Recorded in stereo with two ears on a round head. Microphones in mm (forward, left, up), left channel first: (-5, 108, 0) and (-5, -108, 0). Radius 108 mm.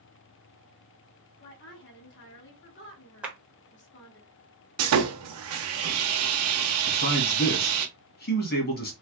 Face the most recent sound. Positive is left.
turn(degrees=40)  # may be behind; listen again after turning